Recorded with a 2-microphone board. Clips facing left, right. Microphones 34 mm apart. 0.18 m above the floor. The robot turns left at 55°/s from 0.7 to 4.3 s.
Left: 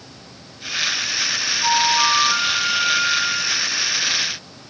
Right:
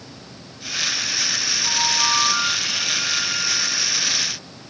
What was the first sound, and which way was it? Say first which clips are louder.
A flute: left 6 dB; 110° left.